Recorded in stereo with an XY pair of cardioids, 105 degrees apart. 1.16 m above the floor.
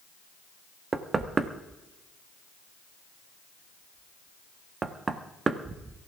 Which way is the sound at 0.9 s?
35° right.